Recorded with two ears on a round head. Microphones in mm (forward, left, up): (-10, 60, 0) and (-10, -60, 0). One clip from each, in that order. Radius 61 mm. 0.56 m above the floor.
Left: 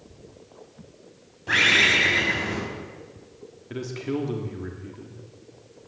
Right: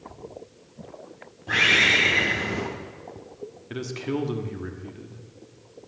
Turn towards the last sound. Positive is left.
turn(degrees=-15)  # may be behind; listen again after turning